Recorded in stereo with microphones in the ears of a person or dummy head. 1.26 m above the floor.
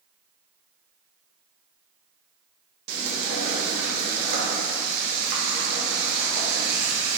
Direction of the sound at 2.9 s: 50° right (ahead or behind).